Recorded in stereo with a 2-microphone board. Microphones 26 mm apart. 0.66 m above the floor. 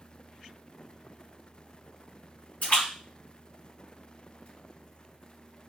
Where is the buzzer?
No buzzer in this recording.